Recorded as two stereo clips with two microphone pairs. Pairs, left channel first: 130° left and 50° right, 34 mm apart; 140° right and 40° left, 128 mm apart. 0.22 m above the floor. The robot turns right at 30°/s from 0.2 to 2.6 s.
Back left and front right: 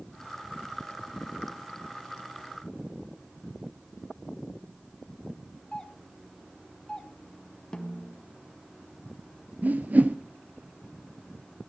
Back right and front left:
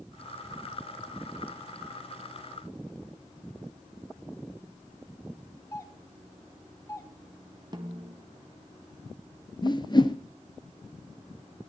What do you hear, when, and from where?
5.7 s a doorbell: 175° right, 2.5 m
7.7 s a snare drum: 80° left, 1.7 m
9.6 s a whoosh: 85° right, 1.2 m